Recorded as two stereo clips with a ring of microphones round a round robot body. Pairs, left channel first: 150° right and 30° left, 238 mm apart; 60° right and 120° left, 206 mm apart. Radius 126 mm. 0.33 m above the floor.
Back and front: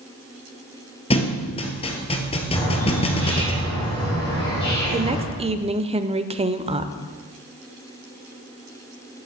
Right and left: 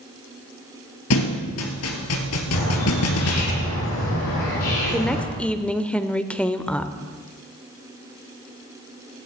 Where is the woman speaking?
15° left, 0.8 m.